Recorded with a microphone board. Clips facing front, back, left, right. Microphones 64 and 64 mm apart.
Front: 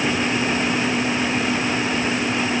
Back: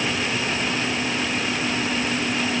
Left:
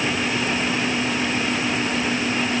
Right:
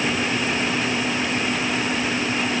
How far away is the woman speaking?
I don't hear a woman speaking.